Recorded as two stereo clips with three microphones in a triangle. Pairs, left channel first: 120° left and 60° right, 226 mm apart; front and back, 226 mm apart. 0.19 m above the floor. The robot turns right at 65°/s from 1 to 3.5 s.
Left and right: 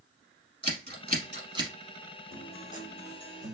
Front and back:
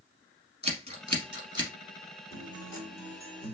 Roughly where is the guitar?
Ahead left.